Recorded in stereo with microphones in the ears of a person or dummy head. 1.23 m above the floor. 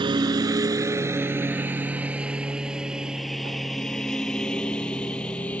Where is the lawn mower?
25° right (ahead or behind); by 5.6 s 10° left (ahead or behind).